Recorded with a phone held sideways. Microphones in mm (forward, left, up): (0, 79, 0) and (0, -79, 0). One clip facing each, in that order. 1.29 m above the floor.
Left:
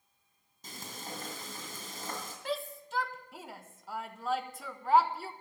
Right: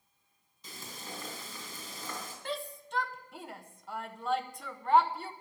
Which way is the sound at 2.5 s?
Centre (ahead or behind).